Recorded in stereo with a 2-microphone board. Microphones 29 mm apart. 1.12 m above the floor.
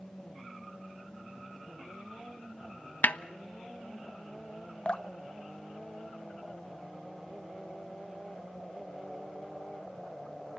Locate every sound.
3.0 s a snare drum: 65° left (ahead or behind), 0.5 m
4.8 s dripping: 35° left (ahead or behind), 0.6 m